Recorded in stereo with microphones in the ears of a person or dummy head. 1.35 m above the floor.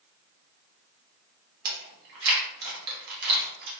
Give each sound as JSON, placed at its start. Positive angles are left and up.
{"t": 1.6, "sound": "chewing", "side_deg": -60, "distance_m": 1.0}